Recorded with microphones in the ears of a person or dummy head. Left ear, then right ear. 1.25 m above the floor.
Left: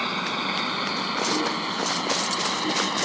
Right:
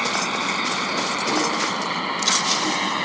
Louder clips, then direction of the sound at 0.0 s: Right 4 dB; 15° right (ahead or behind).